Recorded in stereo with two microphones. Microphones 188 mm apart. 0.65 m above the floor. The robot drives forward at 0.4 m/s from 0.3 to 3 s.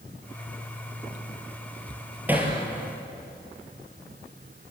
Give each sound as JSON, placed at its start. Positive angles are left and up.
{"t": 2.3, "sound": "hammering", "side_deg": -10, "distance_m": 4.5}